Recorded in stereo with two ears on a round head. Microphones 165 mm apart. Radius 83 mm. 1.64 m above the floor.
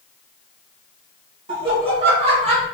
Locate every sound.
1.5 s laughter: 30° right (ahead or behind), 2.5 m; by 2.6 s 35° right (ahead or behind), 1.4 m